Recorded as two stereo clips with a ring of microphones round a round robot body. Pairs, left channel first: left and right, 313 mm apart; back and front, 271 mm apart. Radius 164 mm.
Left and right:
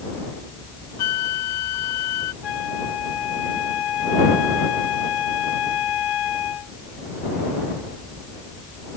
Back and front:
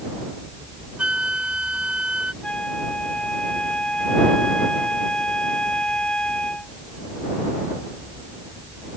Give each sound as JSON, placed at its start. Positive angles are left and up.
{"t": 1.0, "sound": "a flute", "azimuth_deg": 85}
{"t": 2.4, "sound": "a flute", "azimuth_deg": 95}